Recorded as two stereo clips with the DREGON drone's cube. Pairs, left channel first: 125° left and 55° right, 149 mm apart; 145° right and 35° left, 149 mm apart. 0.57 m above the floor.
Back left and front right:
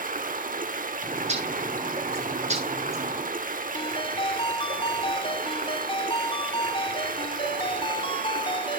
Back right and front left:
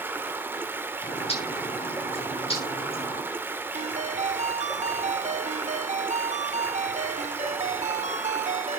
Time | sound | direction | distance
0.0 | running water | 40° right | 1.4 m
1.0 | a bird | 95° right | 8.5 m
3.7 | a ringtone | 70° left | 0.8 m